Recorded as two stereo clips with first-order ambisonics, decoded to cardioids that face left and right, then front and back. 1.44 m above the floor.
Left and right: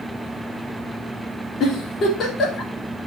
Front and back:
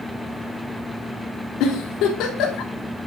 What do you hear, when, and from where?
1.6 s a giggle: 35° left, 3 m